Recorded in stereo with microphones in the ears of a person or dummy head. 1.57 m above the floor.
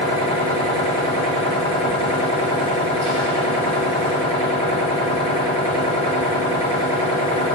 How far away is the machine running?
About 2.5 m.